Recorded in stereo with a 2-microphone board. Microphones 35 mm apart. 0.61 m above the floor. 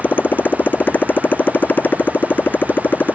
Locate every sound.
0.0 s a motorcycle: 60° left (ahead or behind)